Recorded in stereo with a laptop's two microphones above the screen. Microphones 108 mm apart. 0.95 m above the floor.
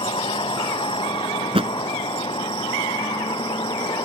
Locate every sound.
0.0 s a vehicle: 50° left (ahead or behind); by 4.1 s 45° left (ahead or behind)
1.4 s a thud: 60° right (ahead or behind)